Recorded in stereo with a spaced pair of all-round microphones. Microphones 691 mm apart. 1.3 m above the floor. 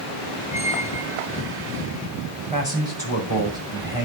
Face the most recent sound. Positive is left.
turn(degrees=25)  # may be behind; listen again after turning